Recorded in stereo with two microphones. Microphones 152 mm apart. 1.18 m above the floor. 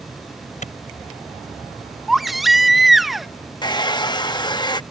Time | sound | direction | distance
0.6 | a clap | 55° left (ahead or behind) | ?
2.1 | a baby crying | centre (ahead or behind) | ?
3.6 | a hair dryer | 30° left (ahead or behind) | ?